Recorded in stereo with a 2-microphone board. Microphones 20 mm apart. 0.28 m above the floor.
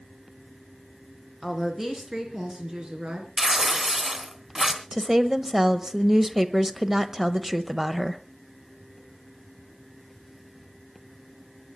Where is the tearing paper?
30° right (ahead or behind), 3 m.